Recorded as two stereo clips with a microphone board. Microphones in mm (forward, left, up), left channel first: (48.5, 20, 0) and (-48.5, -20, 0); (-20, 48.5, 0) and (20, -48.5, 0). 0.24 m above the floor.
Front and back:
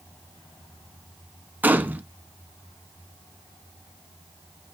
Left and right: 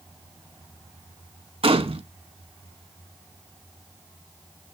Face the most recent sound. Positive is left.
turn(degrees=-85)